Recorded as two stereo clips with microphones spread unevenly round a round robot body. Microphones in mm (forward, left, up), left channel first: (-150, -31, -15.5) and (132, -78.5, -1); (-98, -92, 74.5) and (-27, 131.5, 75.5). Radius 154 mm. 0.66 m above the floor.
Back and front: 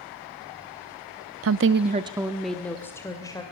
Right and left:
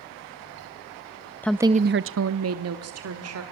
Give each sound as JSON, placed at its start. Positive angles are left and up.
{"t": 1.4, "sound": "a woman speaking", "azimuth_deg": -30, "distance_m": 0.6}